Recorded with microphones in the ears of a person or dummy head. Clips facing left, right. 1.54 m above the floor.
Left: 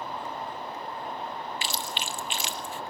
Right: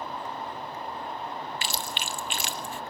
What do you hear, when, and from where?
1.6 s chewing: 45° right (ahead or behind), 0.9 m